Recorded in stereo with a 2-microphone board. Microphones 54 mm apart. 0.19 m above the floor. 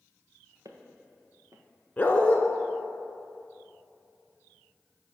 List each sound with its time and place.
0.7 s footsteps: 75° right (ahead or behind), 1.4 m
2.0 s a dog barking: 30° left (ahead or behind), 0.7 m